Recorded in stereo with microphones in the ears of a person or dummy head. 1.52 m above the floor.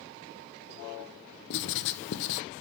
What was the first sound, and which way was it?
Writing, 60° left (ahead or behind).